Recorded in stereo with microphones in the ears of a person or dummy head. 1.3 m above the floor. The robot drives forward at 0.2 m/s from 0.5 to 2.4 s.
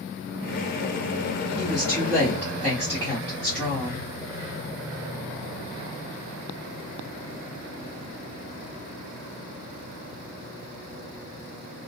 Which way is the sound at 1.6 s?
25° left (ahead or behind).